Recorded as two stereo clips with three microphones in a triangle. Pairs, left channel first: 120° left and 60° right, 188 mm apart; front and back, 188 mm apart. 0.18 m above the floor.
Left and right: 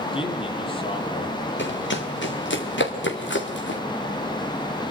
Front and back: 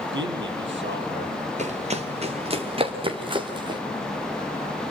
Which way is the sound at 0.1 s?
Straight behind.